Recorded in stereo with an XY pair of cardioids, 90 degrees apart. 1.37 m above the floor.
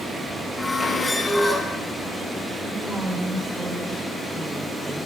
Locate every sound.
0.6 s a squeak: 25° left, 5.5 m
2.7 s a woman speaking: 10° right, 5 m